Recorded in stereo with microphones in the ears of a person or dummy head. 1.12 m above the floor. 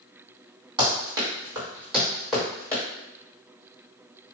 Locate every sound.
0.8 s running footsteps: 25° right (ahead or behind), 1.9 m; by 2.8 s 10° left (ahead or behind), 1.9 m